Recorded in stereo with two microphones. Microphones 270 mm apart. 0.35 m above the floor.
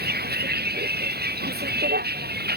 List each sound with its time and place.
0.0 s a vehicle: 40° right (ahead or behind)